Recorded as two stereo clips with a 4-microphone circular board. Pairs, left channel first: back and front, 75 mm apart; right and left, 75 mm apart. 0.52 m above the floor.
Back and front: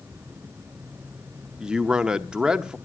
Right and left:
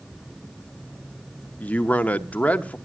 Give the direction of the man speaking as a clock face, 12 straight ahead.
2 o'clock.